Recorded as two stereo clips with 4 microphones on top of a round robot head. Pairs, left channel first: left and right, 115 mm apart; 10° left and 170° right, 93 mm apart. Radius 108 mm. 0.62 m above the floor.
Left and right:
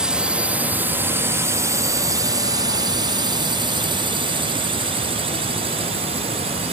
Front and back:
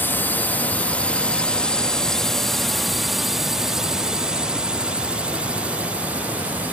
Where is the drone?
20° right; by 6.7 s 100° right.